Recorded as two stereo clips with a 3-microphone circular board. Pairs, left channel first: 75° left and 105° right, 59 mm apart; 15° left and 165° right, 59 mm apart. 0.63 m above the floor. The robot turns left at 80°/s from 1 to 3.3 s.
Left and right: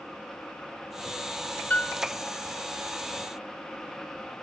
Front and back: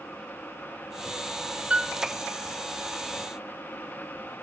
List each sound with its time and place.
1.7 s a piano: 130° left, 1.3 m; by 2.0 s 110° left, 1.3 m